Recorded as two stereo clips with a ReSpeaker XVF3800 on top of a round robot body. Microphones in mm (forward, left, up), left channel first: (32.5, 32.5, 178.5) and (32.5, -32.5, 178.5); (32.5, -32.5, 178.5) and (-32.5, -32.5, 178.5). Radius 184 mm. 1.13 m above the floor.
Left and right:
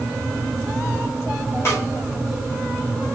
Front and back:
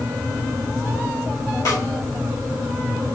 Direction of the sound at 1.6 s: 40° left.